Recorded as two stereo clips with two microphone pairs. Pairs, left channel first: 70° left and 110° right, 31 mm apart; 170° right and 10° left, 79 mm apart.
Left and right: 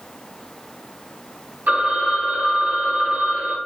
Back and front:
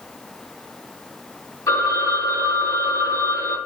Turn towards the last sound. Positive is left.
turn(degrees=-125)